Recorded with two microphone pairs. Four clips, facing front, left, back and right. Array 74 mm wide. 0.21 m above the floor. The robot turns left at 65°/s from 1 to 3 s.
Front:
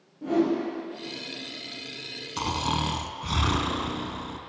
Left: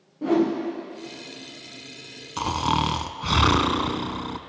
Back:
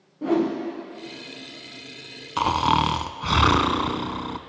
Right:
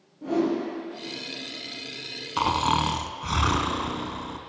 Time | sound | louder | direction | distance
0.2 | a whoosh | left 3 dB, back 2 dB | 155° left | 3.5 m
2.4 | snoring | right 1 dB, back 8 dB | 150° right | 0.5 m